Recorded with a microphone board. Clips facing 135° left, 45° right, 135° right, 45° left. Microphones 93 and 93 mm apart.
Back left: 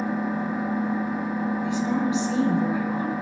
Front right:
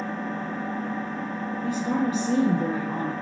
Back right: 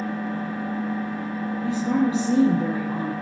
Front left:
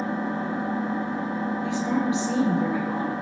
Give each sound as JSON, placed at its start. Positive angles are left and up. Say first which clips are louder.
{"t": 0.0, "sound": "an engine running", "louder": "back left 4 dB, front left 1 dB", "azimuth_deg": 70, "distance_m": 0.8}
{"t": 1.6, "sound": "a woman speaking", "louder": "front right 2 dB, back right 4 dB", "azimuth_deg": -90, "distance_m": 6.0}